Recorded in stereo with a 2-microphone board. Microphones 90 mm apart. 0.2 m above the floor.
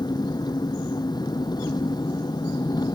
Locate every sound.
0.0 s an engine running: 50° left (ahead or behind)